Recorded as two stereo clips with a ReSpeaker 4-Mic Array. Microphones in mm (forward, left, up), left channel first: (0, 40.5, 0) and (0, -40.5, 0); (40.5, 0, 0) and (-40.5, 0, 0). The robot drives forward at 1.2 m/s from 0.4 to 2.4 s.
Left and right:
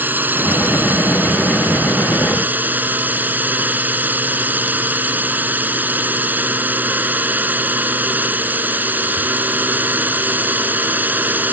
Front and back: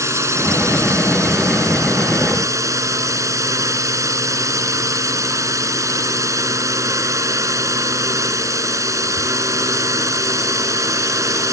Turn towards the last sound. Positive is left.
turn(degrees=-150)